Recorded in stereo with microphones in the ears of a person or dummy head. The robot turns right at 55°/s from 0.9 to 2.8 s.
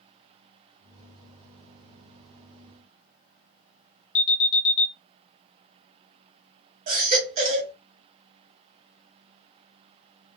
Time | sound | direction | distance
4.2 | an alarm | 35° left (ahead or behind) | 0.6 m
6.9 | a baby crying | 45° right (ahead or behind) | 0.7 m